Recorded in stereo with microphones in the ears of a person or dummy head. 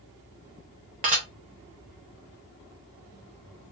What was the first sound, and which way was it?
Dishes clattering, 30° right (ahead or behind).